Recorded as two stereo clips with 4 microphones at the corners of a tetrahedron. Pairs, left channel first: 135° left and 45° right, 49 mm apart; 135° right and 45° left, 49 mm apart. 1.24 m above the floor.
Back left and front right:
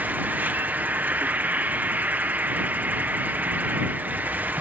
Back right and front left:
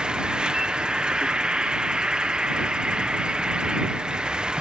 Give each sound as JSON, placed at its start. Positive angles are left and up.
{"t": 0.0, "sound": "an insect", "azimuth_deg": -20}